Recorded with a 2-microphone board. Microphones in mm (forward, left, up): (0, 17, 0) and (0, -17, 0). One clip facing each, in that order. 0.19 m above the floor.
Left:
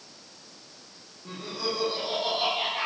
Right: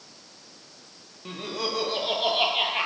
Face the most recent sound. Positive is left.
turn(degrees=-50)  # may be behind; listen again after turning